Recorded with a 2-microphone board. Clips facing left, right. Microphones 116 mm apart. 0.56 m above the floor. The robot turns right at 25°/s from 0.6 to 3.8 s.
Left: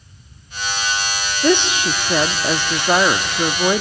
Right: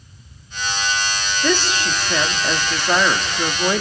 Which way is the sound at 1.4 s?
20° left (ahead or behind).